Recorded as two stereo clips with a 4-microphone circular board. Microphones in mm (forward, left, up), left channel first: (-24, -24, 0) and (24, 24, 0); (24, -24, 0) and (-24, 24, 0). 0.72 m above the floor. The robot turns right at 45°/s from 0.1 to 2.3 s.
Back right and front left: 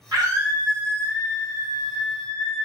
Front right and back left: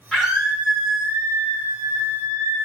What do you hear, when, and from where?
0.1 s a scream: 40° left, 1.9 m; by 2.6 s 140° left, 1.9 m